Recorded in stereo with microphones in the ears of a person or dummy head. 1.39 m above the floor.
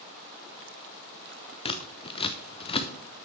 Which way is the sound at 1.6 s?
35° left (ahead or behind).